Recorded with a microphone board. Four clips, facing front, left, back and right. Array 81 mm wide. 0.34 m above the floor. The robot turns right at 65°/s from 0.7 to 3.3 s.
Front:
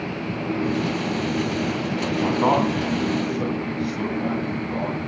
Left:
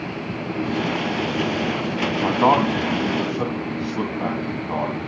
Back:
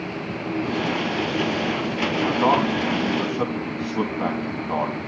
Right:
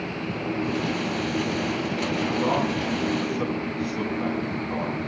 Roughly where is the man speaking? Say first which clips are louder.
Left 8 dB, even; left.